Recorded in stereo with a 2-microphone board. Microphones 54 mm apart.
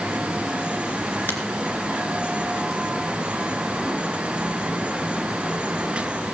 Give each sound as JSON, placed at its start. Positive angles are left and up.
{"t": 1.3, "sound": "a finger snap", "side_deg": 45, "distance_m": 3.0}